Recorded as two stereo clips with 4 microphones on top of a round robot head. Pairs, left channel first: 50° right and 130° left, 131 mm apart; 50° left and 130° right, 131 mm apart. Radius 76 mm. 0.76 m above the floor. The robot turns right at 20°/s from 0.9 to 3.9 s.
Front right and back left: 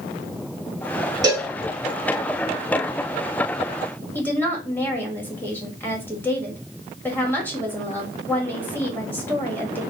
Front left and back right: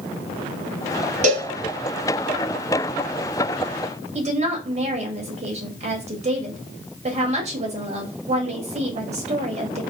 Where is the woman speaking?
125° right, 1.5 m.